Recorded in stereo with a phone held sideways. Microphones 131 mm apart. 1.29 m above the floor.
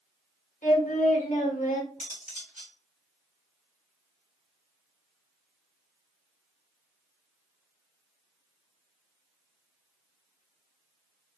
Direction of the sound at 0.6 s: 85° left.